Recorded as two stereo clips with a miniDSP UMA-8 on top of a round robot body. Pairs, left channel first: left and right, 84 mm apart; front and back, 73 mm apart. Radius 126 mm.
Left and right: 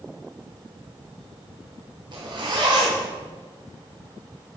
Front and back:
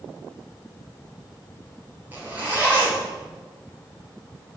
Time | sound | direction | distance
2.1 | a zipper | 115° right | 3.5 m